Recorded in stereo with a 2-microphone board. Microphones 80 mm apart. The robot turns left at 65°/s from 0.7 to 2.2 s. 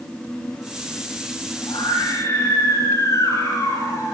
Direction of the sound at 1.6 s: 90° left.